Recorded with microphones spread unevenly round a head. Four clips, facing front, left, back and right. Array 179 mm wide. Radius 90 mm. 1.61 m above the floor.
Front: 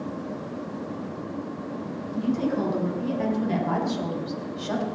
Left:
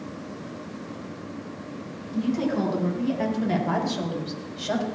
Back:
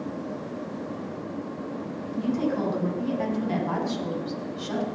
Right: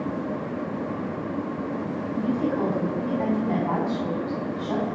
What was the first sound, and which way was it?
A woman speaking, 105° left.